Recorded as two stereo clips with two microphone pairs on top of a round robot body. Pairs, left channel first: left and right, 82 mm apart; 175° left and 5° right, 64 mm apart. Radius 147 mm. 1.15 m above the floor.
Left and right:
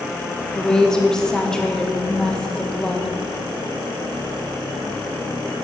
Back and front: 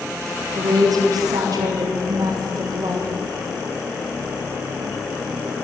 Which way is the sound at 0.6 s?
5° left.